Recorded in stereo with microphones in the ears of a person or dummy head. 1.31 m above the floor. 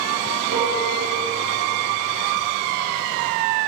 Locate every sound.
0.5 s a piano: 65° right (ahead or behind), 3.5 m